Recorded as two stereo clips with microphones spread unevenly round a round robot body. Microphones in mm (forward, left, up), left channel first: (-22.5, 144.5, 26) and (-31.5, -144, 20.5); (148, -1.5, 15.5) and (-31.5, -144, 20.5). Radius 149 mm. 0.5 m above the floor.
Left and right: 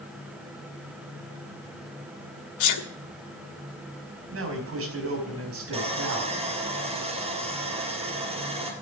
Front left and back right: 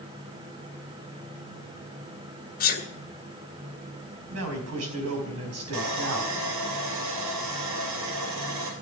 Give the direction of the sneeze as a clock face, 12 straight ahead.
9 o'clock.